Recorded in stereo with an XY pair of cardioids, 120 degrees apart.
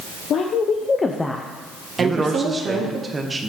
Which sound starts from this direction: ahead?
A man speaking, at 2.0 s.